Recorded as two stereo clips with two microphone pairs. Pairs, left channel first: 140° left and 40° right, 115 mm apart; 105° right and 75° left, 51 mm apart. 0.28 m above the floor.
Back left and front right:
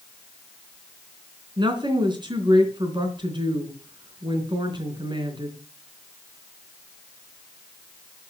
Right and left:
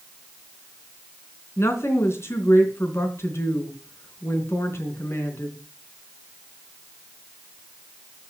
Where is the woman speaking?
80° right, 3.5 m.